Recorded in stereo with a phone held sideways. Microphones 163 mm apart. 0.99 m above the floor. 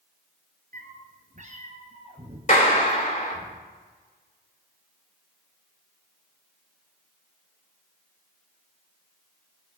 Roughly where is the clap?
Left.